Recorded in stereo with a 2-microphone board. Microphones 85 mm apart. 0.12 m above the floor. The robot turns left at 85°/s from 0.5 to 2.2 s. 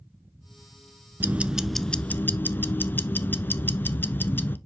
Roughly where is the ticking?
Behind right.